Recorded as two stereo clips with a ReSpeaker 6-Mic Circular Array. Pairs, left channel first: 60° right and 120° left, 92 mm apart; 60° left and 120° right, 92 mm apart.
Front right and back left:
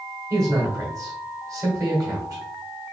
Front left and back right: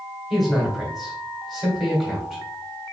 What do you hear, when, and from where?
0.3 s a man speaking: 155° left, 1.7 m